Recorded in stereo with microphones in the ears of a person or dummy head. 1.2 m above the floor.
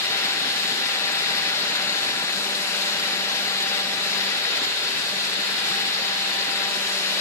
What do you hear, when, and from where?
Only background noise.